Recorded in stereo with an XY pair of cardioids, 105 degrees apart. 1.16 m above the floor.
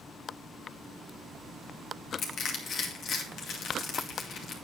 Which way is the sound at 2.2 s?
65° left.